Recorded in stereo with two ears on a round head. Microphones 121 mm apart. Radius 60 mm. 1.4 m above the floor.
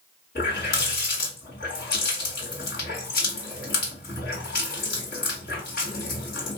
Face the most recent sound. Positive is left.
turn(degrees=75)  # may be behind; listen again after turning